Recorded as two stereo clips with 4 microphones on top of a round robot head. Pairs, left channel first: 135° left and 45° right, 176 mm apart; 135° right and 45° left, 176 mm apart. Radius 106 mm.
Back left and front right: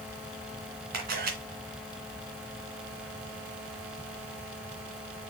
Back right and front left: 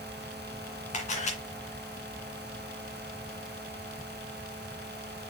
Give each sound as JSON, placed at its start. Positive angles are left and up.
{"t": 0.9, "sound": "a camera shutter", "azimuth_deg": -85, "distance_m": 2.5}